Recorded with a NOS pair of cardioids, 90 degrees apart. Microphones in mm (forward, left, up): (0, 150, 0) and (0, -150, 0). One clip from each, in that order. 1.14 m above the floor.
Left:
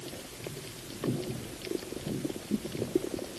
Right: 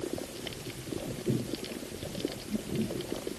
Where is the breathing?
No breathing in this recording.